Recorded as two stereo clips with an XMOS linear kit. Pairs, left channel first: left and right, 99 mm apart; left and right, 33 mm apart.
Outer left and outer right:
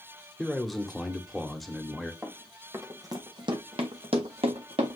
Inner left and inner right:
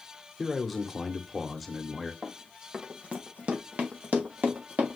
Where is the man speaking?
Centre (ahead or behind), 1.0 m.